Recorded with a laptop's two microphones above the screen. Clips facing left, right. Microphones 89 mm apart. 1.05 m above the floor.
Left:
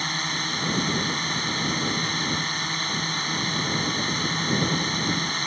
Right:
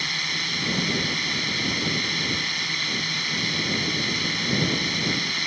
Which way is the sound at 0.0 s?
30° left (ahead or behind).